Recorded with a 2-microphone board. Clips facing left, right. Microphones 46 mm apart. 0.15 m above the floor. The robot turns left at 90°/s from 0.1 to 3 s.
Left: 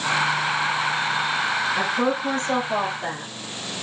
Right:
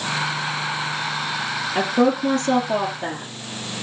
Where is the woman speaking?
40° right, 2.5 m; by 3.3 s 155° right, 2.5 m.